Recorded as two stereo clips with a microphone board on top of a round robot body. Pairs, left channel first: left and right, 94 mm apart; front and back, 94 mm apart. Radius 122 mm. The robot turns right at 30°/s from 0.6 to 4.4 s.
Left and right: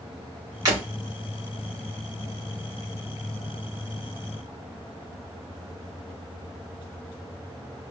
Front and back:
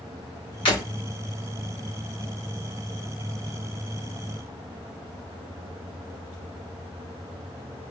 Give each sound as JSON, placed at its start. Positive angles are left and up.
{"t": 0.7, "sound": "breaking glass", "azimuth_deg": -40, "distance_m": 1.2}